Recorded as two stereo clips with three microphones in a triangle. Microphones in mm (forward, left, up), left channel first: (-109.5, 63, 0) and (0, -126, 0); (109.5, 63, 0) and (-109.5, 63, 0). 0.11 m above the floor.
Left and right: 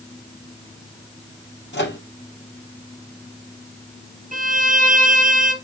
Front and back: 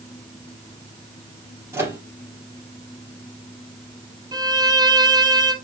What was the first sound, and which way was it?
A microwave, 105° left.